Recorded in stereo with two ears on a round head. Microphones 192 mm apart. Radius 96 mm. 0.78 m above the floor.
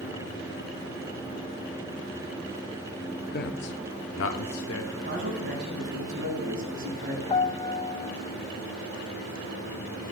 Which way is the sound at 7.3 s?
20° left (ahead or behind).